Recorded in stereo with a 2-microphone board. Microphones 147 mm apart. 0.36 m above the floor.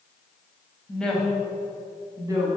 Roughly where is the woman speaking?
Centre.